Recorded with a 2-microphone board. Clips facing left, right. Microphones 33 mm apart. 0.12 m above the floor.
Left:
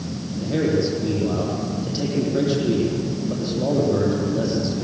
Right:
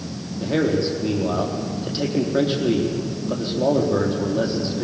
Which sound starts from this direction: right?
A man speaking, at 0.4 s.